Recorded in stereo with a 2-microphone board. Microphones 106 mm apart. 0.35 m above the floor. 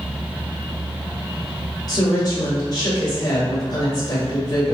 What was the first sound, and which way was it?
A woman speaking, 40° left (ahead or behind).